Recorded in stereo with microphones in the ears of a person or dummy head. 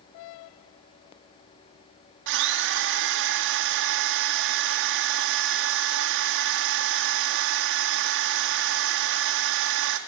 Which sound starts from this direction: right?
A drill, at 2.3 s.